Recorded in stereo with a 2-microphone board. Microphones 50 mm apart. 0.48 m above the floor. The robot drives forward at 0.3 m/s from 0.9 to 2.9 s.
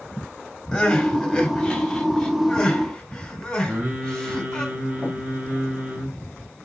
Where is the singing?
35° right (ahead or behind), 5.5 m.